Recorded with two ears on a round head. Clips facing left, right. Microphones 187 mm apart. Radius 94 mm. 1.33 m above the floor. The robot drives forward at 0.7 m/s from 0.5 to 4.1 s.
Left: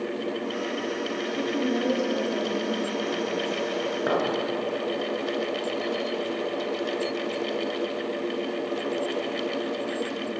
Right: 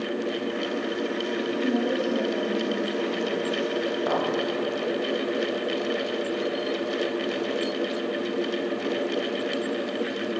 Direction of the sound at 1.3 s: 35° left (ahead or behind).